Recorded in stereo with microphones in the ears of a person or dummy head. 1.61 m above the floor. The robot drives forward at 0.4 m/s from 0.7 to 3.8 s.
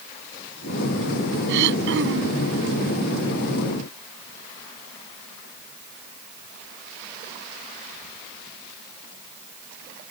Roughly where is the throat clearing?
Right.